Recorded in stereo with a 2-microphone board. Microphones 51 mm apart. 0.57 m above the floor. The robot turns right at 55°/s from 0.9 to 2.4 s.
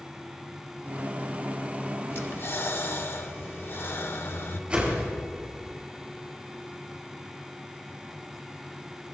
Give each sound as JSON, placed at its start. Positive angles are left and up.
{"t": 2.1, "sound": "breathing", "side_deg": 55, "distance_m": 0.9}
{"t": 4.7, "sound": "a whoosh", "side_deg": -20, "distance_m": 5.5}